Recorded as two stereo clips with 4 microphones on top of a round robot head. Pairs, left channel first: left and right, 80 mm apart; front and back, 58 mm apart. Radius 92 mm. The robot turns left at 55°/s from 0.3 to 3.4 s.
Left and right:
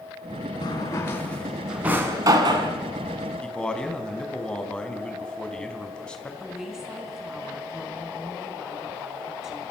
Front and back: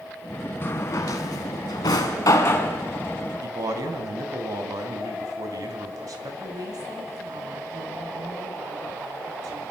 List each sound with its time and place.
0.6 s a drawer: 50° left, 3 m; by 2.7 s 65° right, 3 m
3.4 s a man speaking: 165° left, 4.5 m
6.4 s a woman speaking: 175° right, 4.5 m